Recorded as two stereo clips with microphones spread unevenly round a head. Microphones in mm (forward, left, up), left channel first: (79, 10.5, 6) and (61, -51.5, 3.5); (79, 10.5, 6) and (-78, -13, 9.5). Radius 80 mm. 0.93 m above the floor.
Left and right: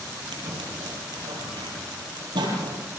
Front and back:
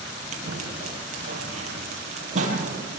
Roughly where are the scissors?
Behind right.